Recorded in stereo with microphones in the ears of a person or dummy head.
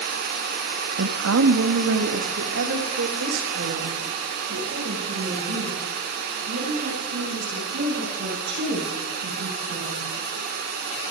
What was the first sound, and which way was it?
A woman speaking, 70° right (ahead or behind).